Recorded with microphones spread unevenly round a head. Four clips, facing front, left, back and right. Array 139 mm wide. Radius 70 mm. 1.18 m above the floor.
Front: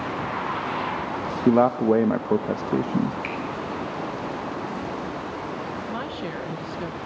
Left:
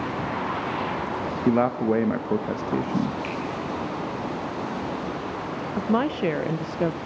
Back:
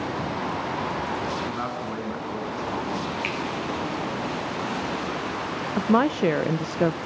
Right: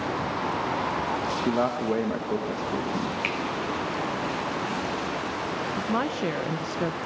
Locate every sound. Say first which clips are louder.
1.5 s a man speaking: left 5 dB, front 12 dB; 5° left, 0.8 m
3.2 s a finger snap: even, even; 100° right, 5.5 m
5.8 s a woman speaking: left 6 dB, back 10 dB; 155° left, 0.6 m